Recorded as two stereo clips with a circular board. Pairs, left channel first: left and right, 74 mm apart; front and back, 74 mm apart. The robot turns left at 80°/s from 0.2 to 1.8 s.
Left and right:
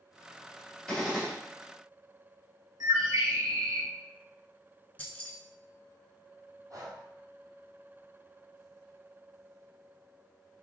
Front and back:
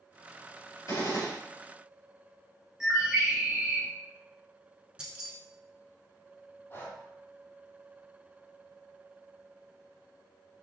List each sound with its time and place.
0.9 s a gunshot: 15° left, 2.5 m; by 1.3 s 25° right, 2.5 m
2.8 s a bird: 100° right, 2 m
5.0 s keys jangling: 120° left, 1.0 m
6.7 s breathing: 55° right, 1.1 m